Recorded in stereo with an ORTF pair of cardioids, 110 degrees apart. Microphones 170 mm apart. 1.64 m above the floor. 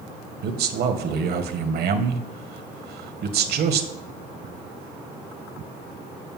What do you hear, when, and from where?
0.4 s a man speaking: 65° right, 1.8 m